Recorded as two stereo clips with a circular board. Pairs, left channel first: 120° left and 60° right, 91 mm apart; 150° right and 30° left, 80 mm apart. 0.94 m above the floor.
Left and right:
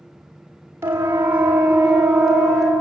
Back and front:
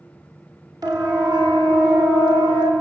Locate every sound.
0.8 s a siren: straight ahead, 4 m; by 2.7 s 30° left, 5 m